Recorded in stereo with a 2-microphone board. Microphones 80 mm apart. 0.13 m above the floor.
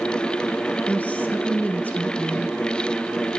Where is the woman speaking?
20° left (ahead or behind), 1.2 m.